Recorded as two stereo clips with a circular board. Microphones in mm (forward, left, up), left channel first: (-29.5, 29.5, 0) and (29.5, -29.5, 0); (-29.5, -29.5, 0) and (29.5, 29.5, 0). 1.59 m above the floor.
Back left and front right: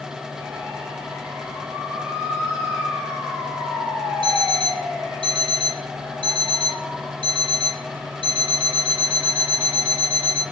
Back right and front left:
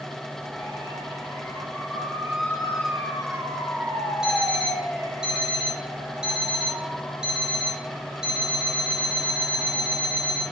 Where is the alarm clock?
35° right, 3.5 m.